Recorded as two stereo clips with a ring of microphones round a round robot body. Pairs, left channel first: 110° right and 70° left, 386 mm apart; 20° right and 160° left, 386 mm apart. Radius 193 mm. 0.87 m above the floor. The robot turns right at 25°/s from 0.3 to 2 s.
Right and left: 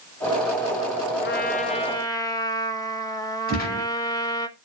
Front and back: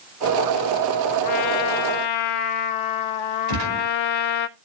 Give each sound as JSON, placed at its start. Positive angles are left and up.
{"t": 1.2, "sound": "a trumpet", "azimuth_deg": -50, "distance_m": 1.3}
{"t": 3.5, "sound": "a gunshot", "azimuth_deg": 180, "distance_m": 5.5}